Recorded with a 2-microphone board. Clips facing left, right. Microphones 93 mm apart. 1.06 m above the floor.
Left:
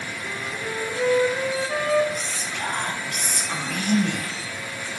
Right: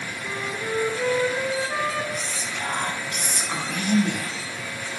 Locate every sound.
0.2 s a flute: 5° right (ahead or behind), 2.5 m
2.1 s whispering: 10° right (ahead or behind), 5 m